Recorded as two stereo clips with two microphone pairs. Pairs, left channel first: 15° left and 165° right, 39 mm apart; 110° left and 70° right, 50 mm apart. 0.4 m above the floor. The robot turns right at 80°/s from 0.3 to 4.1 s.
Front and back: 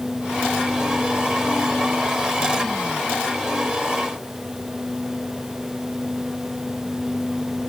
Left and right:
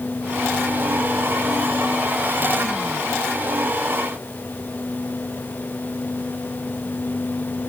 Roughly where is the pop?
I don't hear a pop.